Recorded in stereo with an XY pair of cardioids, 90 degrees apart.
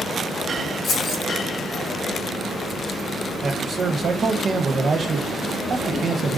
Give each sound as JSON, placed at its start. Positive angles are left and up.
{"t": 0.8, "sound": "keys jangling", "azimuth_deg": 60, "distance_m": 1.0}
{"t": 3.4, "sound": "a man speaking", "azimuth_deg": -50, "distance_m": 0.7}